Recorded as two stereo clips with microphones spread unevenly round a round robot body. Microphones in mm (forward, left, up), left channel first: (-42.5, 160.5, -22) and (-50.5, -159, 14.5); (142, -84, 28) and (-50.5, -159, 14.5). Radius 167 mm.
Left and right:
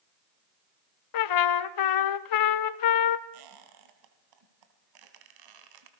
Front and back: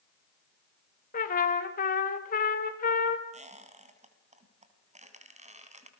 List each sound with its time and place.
1.1 s a trumpet: 80° left, 1.1 m
3.3 s a squeak: 100° right, 3.5 m